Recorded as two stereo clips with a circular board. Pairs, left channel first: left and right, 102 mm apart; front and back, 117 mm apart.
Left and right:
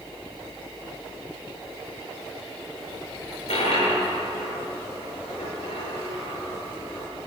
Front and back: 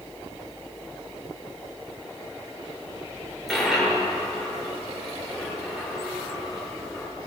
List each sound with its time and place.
3.5 s a dropped coin: 90° left, 5.5 m